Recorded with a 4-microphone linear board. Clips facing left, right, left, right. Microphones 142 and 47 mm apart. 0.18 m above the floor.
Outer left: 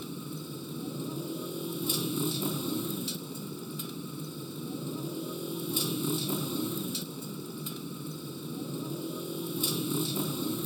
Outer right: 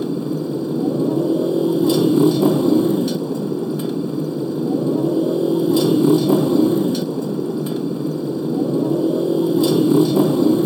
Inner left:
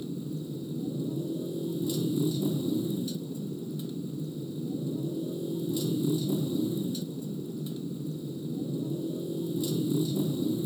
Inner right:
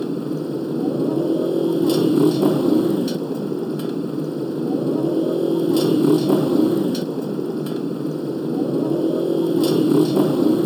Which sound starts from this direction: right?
A motorcycle, at 0.0 s.